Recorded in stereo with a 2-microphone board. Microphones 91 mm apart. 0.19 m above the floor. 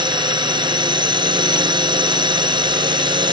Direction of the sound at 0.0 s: 60° right (ahead or behind).